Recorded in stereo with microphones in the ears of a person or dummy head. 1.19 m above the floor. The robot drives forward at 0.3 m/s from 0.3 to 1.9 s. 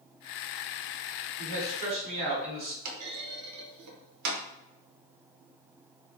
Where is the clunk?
80° right, 0.6 m.